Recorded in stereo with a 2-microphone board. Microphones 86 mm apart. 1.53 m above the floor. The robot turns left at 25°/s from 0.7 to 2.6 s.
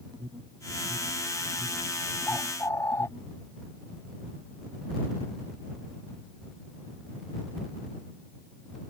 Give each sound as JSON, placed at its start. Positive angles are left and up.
{"t": 0.1, "sound": "an alarm", "side_deg": -60}
{"t": 2.3, "sound": "a bird", "side_deg": 25}